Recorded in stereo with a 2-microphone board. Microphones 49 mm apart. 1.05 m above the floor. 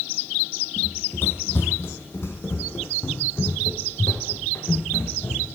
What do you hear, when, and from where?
0.8 s running footsteps: 45° left (ahead or behind), 2 m; by 5.5 s 60° left (ahead or behind), 4.5 m